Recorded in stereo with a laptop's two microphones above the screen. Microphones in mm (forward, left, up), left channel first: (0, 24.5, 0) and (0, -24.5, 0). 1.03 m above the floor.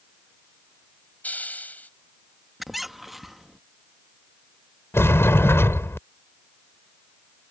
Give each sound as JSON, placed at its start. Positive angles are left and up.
{"t": 1.2, "sound": "a hiss", "side_deg": 40}
{"t": 2.6, "sound": "a squeak", "side_deg": 0}
{"t": 4.9, "sound": "a sliding door", "side_deg": 65}